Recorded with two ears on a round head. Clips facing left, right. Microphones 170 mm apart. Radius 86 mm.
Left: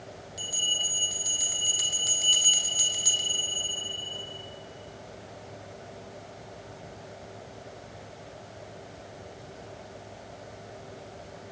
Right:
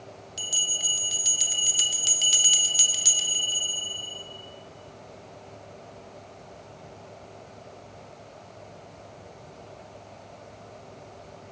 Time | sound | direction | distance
0.4 | a bell | 35° right (ahead or behind) | 0.8 m